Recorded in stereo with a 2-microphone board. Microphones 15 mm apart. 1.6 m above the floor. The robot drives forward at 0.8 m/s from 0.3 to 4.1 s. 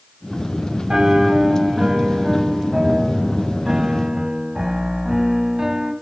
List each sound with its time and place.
0.9 s a piano: 75° right (ahead or behind), 4.5 m; by 5.9 s 55° right (ahead or behind), 5 m